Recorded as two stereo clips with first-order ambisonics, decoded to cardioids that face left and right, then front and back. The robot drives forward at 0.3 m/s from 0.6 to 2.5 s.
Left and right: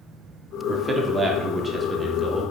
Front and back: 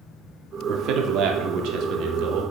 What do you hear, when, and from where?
0.7 s a man speaking: 160° right, 0.8 m; by 2.4 s 170° right, 1.2 m